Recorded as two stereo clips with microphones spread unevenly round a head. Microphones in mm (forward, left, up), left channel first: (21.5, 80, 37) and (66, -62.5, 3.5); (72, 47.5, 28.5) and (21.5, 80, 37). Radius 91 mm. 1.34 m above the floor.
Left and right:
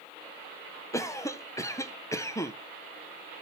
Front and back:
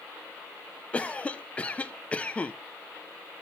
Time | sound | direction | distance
0.9 | a cough | 35° left | 1.1 m